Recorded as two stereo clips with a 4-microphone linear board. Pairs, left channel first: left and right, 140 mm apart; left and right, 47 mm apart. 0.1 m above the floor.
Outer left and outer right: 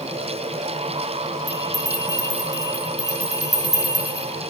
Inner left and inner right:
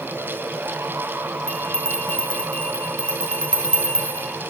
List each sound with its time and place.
1.5 s a bell: 25° left (ahead or behind), 2.0 m